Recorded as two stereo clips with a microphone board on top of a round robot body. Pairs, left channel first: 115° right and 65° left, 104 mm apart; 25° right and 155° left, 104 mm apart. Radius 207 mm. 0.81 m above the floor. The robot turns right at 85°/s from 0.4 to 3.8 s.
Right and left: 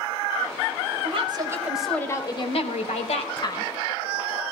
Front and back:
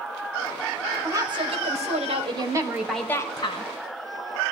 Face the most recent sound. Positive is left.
turn(degrees=-35)